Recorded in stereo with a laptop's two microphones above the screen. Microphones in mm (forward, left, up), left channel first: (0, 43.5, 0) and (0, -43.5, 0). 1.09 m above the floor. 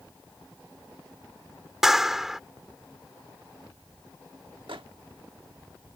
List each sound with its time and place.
1.8 s a clap: 5° right (ahead or behind)
4.7 s a microwave: 75° right (ahead or behind)